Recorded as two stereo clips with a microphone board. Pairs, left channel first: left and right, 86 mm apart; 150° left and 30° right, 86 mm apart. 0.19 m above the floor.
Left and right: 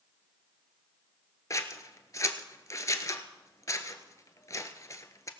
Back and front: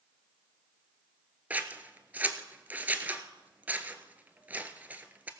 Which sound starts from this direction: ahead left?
Scissors, at 1.5 s.